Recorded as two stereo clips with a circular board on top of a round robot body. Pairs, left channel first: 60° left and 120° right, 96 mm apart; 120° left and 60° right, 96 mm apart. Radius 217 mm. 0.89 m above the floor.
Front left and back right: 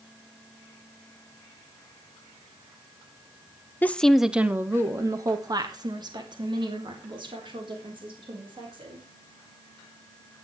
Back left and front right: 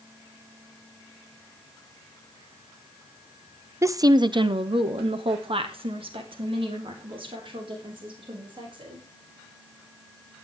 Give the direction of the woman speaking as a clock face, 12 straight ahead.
12 o'clock.